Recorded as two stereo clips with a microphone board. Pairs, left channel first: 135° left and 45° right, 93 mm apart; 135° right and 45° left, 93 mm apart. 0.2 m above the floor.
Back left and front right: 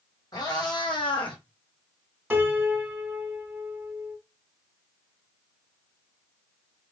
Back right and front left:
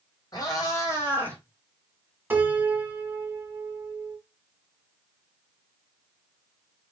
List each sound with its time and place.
0.3 s a cat meowing: straight behind, 1.3 m; by 1.4 s 155° left, 1.2 m
2.3 s a piano: 5° left, 1.1 m